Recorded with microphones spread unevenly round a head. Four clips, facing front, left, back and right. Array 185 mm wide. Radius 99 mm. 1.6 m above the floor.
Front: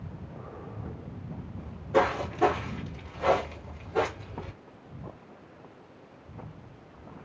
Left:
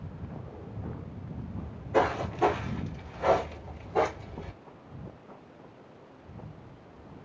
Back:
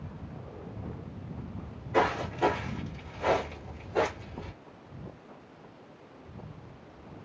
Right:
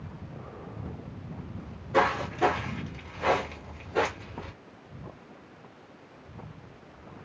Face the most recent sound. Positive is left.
turn(degrees=180)